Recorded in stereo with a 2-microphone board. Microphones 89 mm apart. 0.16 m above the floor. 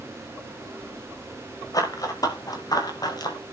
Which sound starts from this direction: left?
Running footsteps, at 1.7 s.